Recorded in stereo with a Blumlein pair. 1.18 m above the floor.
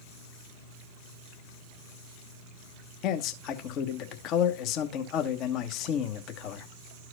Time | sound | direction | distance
3.0 | a man speaking | 35° left | 1.2 m